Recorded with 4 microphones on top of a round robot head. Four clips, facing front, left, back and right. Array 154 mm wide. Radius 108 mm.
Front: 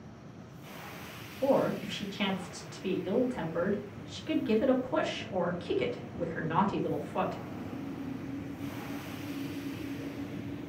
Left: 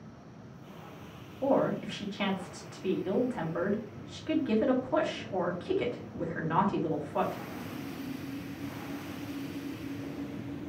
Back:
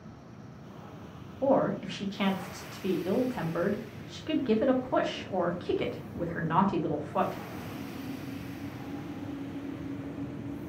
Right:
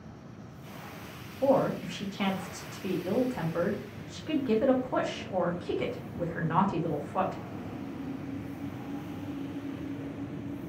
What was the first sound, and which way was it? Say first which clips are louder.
A woman speaking: right 2 dB, back 2 dB; 160° right.